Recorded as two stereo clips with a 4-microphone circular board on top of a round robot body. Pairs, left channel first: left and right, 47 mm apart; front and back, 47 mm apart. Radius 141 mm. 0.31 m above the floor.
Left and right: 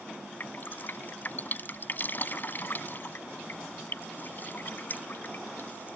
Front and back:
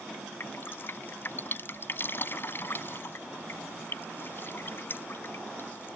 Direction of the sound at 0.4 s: 40° left.